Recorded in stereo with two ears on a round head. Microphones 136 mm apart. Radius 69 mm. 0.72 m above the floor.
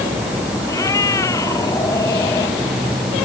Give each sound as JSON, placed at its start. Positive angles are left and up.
{"t": 0.7, "sound": "a cat meowing", "side_deg": 20}